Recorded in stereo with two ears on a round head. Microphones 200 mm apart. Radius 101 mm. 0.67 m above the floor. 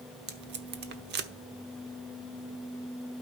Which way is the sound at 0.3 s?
50° right (ahead or behind).